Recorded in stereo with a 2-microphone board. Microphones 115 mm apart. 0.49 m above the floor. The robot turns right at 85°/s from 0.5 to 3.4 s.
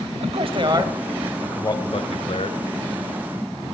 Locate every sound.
0.2 s a man speaking: 55° right (ahead or behind), 2.5 m; by 2.6 s 55° left (ahead or behind), 2.5 m